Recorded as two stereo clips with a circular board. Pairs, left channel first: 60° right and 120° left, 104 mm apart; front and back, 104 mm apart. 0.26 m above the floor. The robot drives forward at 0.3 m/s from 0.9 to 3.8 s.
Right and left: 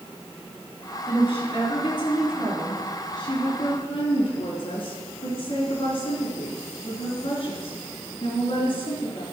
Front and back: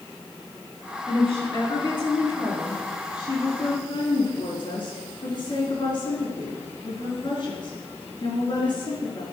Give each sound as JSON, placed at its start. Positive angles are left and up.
{"t": 1.1, "sound": "a woman speaking", "azimuth_deg": -30, "distance_m": 4.5}